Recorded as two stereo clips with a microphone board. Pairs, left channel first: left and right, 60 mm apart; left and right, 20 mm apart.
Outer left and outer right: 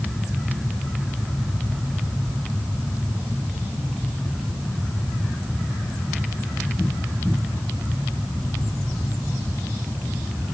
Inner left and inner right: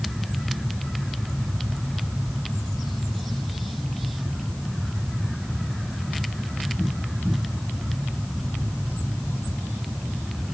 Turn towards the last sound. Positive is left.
No sound to turn to.